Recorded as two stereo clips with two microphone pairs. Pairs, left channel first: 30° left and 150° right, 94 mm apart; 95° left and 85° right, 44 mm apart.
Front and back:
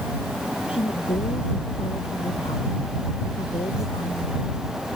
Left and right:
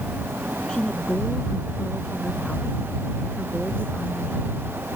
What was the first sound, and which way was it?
A woman speaking, 20° left.